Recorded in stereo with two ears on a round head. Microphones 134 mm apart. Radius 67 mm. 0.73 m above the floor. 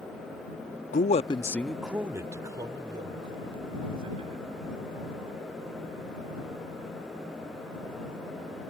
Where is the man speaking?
60° left (ahead or behind); by 4.7 s 40° right (ahead or behind).